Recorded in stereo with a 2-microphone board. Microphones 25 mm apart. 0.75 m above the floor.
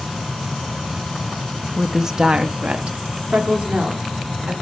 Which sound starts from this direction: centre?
A woman speaking, at 1.8 s.